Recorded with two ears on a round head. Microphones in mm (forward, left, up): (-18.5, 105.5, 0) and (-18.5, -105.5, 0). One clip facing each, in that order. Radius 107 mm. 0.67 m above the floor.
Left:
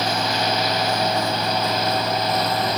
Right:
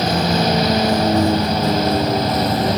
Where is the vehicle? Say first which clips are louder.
Right 6 dB; 35° right (ahead or behind); by 2.8 s 30° right (ahead or behind).